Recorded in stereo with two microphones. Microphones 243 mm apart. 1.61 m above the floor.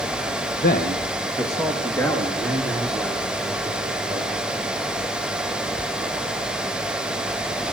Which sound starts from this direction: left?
A man speaking, at 0.6 s.